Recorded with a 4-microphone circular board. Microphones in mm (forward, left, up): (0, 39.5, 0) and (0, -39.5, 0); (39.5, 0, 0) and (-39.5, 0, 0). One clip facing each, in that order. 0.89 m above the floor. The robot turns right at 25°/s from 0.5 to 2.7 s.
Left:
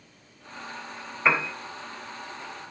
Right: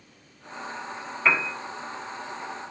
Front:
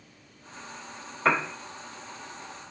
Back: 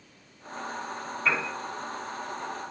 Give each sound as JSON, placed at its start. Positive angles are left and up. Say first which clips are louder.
{"t": 1.2, "sound": "a piano", "louder": "even, front 4 dB", "azimuth_deg": 20, "distance_m": 0.6}